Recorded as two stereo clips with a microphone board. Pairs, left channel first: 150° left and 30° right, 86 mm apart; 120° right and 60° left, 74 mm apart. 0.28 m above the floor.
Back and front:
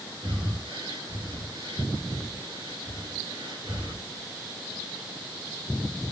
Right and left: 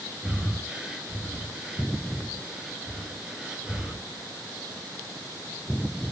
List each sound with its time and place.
0.2 s breathing: 20° right, 1.6 m